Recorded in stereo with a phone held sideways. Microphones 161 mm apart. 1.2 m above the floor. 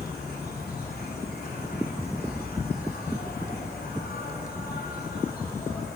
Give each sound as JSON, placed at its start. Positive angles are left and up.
{"t": 0.0, "sound": "an insect", "side_deg": 75, "distance_m": 3.5}